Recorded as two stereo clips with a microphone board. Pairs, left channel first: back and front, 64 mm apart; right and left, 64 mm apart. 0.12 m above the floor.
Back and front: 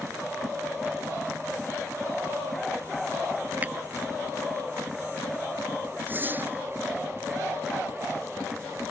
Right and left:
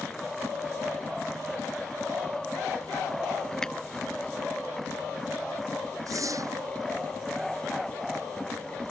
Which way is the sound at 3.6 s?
20° right.